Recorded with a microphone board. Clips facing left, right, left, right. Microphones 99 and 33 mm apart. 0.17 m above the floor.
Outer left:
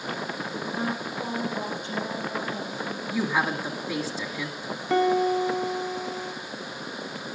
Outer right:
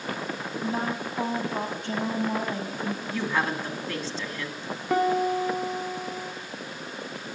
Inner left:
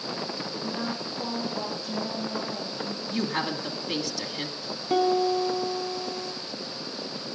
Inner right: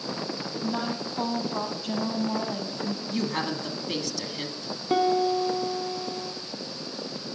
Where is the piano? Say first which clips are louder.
Outer left 2 dB, even; 10° right (ahead or behind), 0.8 m.